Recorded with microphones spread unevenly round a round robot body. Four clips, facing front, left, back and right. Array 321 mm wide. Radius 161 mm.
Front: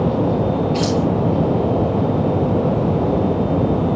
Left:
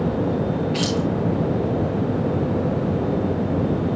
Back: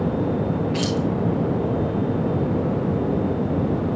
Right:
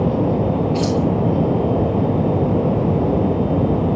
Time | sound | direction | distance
0.7 | keys jangling | 155° left | 3 m